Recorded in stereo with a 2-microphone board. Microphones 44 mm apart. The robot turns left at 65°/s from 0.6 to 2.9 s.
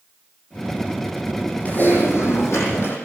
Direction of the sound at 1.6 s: 140° left.